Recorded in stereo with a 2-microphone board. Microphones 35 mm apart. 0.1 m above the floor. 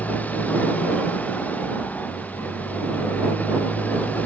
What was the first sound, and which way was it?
A motorcycle, 45° left (ahead or behind).